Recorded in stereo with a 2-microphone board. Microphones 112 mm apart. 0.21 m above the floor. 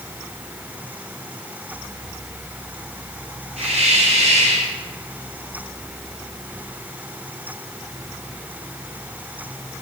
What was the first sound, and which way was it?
A hiss, 75° right (ahead or behind).